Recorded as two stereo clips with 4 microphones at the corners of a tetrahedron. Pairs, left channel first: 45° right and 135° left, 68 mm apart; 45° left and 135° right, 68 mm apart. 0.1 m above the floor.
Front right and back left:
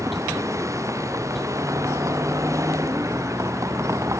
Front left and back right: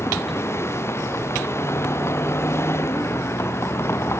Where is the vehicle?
95° left.